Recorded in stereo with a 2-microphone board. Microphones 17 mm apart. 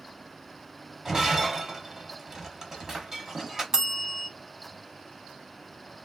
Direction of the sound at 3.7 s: 35° right (ahead or behind).